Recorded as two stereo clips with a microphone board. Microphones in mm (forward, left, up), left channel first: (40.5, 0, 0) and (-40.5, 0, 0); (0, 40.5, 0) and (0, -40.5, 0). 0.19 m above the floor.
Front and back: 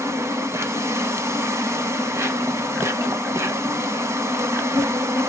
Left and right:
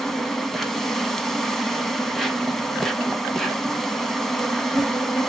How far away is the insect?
About 1.1 m.